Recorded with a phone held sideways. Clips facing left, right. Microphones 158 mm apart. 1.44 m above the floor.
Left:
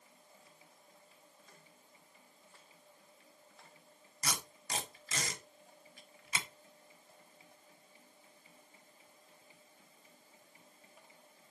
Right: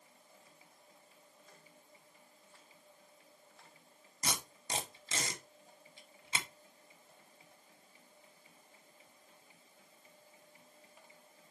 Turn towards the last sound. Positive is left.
turn(degrees=-25)  # may be behind; listen again after turning